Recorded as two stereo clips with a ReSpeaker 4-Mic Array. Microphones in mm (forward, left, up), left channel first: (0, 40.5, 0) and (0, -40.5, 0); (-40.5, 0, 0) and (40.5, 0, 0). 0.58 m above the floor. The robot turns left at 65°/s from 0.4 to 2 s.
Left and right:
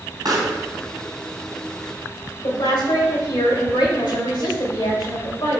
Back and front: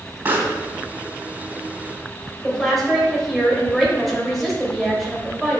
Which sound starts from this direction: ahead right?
A pop, at 0.2 s.